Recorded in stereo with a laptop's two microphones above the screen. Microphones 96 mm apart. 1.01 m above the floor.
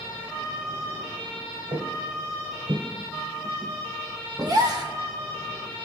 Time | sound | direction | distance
1.7 | footsteps | 40° right (ahead or behind) | 1.4 m
4.4 | a gasp | 45° right (ahead or behind) | 1.2 m